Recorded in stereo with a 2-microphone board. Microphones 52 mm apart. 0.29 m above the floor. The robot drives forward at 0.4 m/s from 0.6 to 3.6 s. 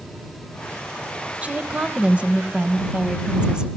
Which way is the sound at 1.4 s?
25° right (ahead or behind).